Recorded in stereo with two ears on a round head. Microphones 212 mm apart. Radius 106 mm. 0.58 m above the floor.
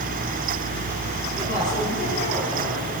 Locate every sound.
1.4 s a woman speaking: 35° left (ahead or behind), 7 m